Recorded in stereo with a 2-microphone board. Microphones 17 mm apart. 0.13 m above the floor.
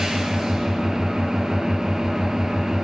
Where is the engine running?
55° right (ahead or behind), 1.8 m.